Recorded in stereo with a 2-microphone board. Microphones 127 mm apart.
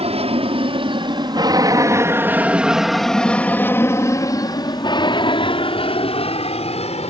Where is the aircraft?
55° right (ahead or behind); by 7.1 s 55° left (ahead or behind).